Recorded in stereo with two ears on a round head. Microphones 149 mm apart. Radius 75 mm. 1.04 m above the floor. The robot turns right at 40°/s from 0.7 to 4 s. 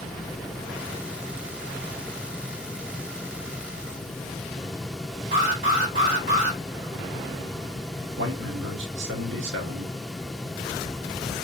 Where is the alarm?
55° right (ahead or behind), 2.5 m.